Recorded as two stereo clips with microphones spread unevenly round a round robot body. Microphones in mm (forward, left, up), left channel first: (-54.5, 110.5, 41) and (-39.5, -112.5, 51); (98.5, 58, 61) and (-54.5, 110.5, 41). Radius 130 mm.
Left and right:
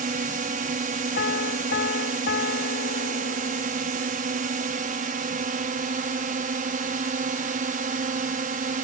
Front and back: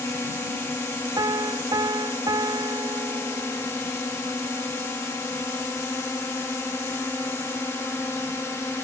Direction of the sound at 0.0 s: 95° right.